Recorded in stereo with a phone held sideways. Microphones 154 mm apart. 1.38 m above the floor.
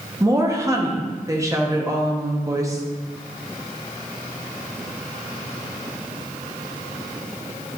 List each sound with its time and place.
0.2 s a woman speaking: 20° right (ahead or behind), 1.0 m